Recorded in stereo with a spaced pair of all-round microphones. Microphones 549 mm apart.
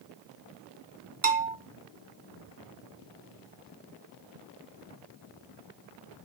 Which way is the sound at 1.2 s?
65° right (ahead or behind).